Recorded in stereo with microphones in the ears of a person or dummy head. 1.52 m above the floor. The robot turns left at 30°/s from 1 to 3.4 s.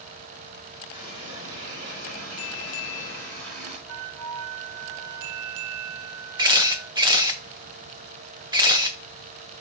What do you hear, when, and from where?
0.9 s a running tap: 25° right, 3.5 m; by 3.8 s 100° right, 3.5 m
3.9 s a flute: 85° right, 0.8 m
6.4 s a camera shutter: 15° right (ahead or behind), 0.7 m